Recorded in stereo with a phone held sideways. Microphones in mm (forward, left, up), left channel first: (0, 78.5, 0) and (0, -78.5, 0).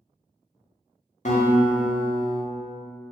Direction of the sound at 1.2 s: 50° left (ahead or behind).